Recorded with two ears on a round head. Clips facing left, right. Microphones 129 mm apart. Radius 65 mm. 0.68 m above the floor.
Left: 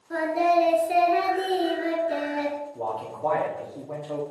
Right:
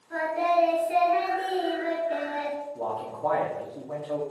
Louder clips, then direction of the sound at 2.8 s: Left 1 dB; centre (ahead or behind).